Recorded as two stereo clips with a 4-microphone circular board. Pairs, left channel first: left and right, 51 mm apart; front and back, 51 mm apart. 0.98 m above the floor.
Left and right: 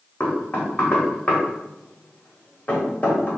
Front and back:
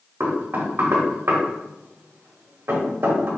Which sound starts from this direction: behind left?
Knocking, at 0.2 s.